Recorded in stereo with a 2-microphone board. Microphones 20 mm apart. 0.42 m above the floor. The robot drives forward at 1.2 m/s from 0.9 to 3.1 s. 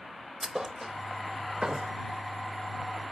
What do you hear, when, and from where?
0.4 s a thud: 30° right (ahead or behind), 0.8 m